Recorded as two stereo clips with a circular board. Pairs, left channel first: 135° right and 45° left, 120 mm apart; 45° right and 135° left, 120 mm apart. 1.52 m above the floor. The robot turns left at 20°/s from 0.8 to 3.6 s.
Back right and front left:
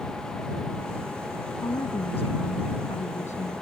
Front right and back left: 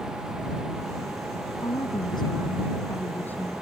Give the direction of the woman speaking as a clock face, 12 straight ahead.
3 o'clock.